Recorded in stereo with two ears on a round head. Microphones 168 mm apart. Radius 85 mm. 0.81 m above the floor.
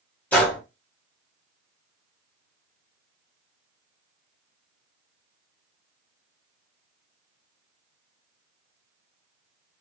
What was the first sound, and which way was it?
A gunshot, 10° left (ahead or behind).